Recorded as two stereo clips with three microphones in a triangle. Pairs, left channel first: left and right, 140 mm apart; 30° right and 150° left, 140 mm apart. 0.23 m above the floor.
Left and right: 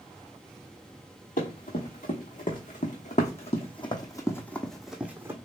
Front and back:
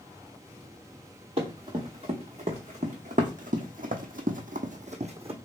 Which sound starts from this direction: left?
Running footsteps, at 1.4 s.